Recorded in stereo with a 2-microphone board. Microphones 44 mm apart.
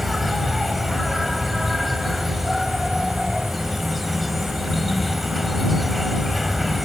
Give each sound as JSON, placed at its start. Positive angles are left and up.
{"t": 0.0, "sound": "an insect", "side_deg": 0}